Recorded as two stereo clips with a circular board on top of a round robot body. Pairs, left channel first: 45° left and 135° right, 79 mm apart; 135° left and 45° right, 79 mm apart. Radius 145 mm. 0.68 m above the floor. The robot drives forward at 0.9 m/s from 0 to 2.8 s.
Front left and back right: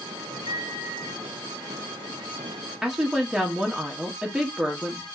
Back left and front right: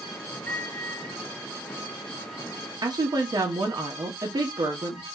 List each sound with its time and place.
0.5 s a microwave: 155° right, 1.0 m; by 1.2 s 165° right, 1.6 m
2.8 s a woman speaking: 50° right, 1.4 m